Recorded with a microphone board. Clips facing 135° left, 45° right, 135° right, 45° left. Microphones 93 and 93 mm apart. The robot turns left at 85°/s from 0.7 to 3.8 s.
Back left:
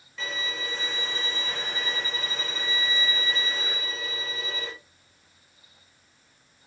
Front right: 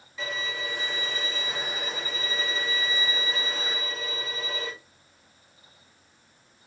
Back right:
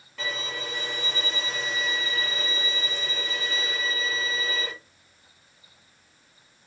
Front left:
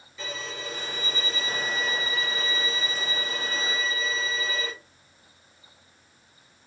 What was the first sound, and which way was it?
A violin, 130° right.